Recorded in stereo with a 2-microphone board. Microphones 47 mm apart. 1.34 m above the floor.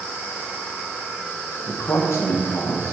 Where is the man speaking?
70° left (ahead or behind), 0.7 m.